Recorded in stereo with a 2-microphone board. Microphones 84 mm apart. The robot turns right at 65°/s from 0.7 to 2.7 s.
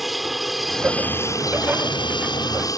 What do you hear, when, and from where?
0.0 s an aircraft: centre (ahead or behind); by 2.8 s 45° left (ahead or behind)